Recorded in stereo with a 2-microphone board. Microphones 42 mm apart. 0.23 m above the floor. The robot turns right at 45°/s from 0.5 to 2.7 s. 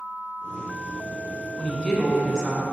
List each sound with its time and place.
1.6 s a woman speaking: 155° left, 2.5 m; by 2.6 s 155° right, 2.5 m